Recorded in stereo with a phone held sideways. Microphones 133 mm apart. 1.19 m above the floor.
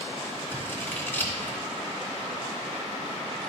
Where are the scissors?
20° left (ahead or behind), 1.4 m.